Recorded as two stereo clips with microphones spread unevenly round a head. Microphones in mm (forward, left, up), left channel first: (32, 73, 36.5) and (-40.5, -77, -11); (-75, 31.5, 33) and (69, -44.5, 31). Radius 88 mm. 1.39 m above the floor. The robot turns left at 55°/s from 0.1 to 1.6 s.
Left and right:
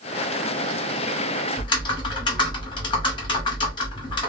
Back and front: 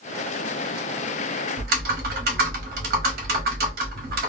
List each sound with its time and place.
1.6 s typing on a keyboard: 5° right, 0.9 m